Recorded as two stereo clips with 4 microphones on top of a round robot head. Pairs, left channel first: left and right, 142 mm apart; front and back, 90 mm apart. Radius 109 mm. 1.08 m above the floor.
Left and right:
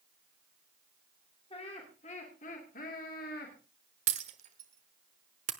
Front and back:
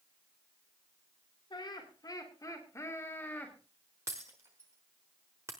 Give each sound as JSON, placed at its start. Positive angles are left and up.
{"t": 1.5, "sound": "laughter", "azimuth_deg": 35, "distance_m": 3.0}
{"t": 4.1, "sound": "breaking glass", "azimuth_deg": -110, "distance_m": 0.9}